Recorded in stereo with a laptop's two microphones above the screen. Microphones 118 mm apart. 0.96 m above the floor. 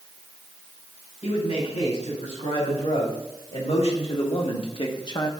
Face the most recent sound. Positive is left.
turn(degrees=30)  # may be behind; listen again after turning